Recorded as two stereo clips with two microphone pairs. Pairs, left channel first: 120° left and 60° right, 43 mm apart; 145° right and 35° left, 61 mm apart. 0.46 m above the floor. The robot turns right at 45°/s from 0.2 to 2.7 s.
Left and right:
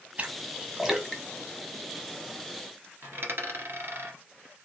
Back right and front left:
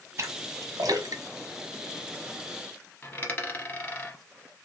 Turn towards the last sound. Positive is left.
turn(degrees=-85)